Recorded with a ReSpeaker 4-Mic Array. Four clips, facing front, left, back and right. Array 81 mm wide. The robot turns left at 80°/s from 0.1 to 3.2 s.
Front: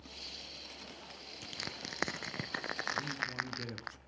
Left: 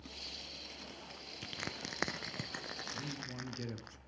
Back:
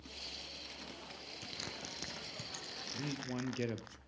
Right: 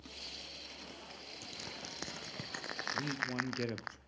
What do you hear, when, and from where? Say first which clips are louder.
1.4 s crushing: left 5 dB, front 3 dB; 90° left, 0.8 m; by 3.9 s 55° right, 0.8 m
2.9 s a man speaking: right 11 dB, front 2 dB; 105° right, 2 m; by 4.0 s 125° right, 2 m